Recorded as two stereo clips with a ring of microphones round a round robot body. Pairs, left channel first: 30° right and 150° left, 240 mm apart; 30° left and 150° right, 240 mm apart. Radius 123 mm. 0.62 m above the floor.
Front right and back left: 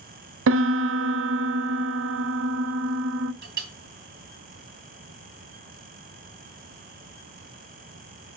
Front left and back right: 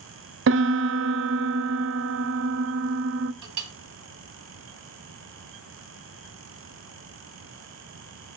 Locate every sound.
0.5 s a piano: straight behind, 0.7 m
3.4 s a clink: 160° right, 2.5 m